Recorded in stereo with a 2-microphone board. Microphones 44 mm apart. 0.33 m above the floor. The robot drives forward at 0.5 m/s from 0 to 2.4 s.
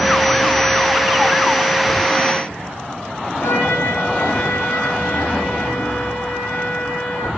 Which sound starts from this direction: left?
A trumpet, at 3.4 s.